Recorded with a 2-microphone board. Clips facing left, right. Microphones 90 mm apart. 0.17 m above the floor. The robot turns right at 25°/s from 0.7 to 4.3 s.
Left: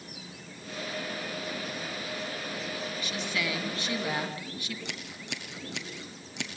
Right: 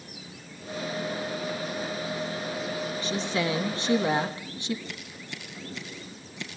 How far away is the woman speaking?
About 1.8 m.